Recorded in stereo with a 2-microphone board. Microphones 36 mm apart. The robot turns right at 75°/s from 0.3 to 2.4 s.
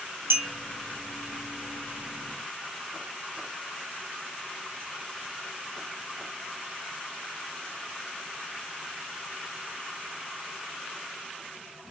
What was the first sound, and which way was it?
A clink, 70° right (ahead or behind).